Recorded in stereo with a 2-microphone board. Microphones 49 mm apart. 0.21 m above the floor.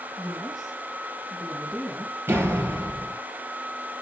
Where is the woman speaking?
Centre (ahead or behind), 4.5 m.